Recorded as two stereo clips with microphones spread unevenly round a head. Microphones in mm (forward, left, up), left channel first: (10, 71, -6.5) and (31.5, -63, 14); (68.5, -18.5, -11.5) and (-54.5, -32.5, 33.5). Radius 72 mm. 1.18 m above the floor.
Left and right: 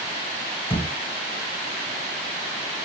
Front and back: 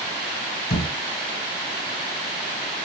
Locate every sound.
0.7 s a thud: 20° left, 2.5 m